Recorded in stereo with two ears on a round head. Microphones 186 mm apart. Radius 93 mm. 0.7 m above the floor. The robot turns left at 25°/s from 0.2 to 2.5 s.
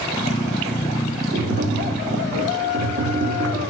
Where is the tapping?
40° right (ahead or behind), 2 m; by 3.6 s 60° right (ahead or behind), 2 m.